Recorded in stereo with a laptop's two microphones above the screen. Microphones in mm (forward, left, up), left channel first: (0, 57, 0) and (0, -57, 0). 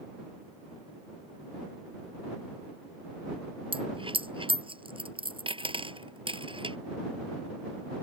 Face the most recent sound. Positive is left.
turn(degrees=-45)  # may be behind; listen again after turning